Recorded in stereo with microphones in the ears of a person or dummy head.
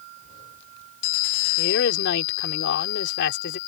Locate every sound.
1.6 s a woman speaking: 75° left (ahead or behind)